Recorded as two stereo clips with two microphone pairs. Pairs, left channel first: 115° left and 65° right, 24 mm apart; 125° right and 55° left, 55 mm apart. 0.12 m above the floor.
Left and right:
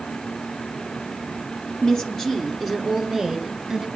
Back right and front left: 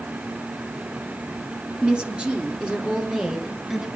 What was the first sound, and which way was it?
A woman speaking, 105° left.